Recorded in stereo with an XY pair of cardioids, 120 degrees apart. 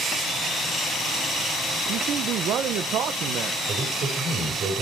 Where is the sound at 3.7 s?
60° right, 3.5 m.